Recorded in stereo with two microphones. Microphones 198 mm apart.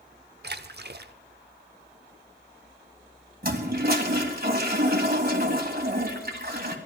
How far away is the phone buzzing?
I don't hear a phone buzzing.